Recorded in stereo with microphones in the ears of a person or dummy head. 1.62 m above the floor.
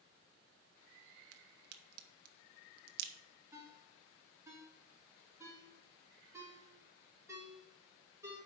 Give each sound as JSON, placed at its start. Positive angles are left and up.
{"t": 1.3, "sound": "a crack", "side_deg": -60, "distance_m": 0.7}
{"t": 3.5, "sound": "a ringtone", "side_deg": -15, "distance_m": 2.5}